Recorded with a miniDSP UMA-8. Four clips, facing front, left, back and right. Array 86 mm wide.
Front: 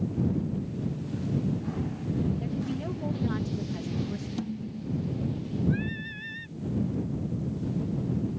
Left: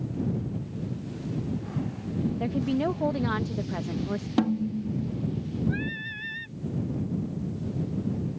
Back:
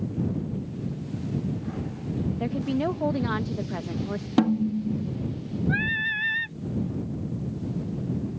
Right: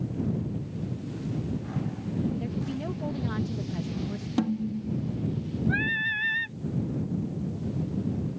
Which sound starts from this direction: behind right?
Singing, at 5.7 s.